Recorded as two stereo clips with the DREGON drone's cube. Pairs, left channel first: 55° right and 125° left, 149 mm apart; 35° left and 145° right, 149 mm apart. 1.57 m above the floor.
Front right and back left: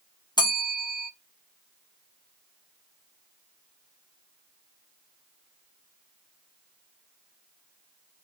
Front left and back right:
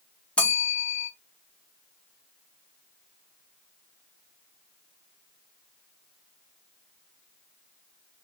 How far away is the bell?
About 0.8 m.